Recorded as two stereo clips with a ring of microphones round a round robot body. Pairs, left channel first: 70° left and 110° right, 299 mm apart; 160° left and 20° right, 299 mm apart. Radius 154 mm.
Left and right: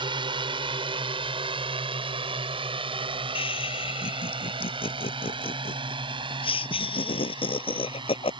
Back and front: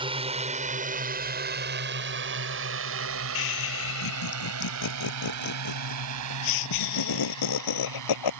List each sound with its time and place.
0.0 s a drone: 65° right; by 8.4 s 40° right
3.4 s laughter: 140° left